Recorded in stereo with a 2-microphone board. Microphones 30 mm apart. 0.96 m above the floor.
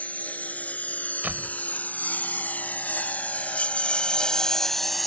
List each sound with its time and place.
0.0 s a lawn mower: 55° left (ahead or behind); by 5.1 s centre (ahead or behind)
1.2 s a door slam: 75° right (ahead or behind)